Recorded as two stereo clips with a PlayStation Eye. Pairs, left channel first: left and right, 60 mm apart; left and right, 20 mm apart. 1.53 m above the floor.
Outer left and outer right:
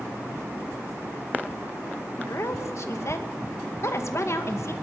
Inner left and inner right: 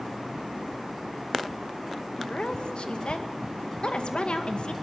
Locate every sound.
2.2 s a woman speaking: 50° left (ahead or behind), 2 m